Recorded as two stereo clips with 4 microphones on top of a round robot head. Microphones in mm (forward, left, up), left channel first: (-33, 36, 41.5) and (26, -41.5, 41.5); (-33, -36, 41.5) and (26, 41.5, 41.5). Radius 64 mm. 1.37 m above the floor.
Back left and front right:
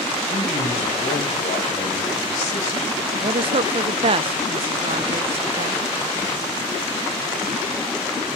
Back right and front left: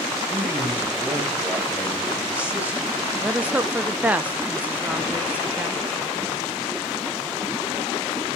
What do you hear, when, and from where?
0.3 s a man speaking: 130° left, 3.5 m
3.2 s a woman speaking: 25° right, 0.9 m